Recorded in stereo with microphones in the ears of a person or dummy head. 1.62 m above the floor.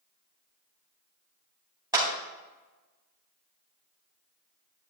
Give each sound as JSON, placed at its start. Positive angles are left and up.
{"t": 1.9, "sound": "a clap", "side_deg": -15, "distance_m": 2.5}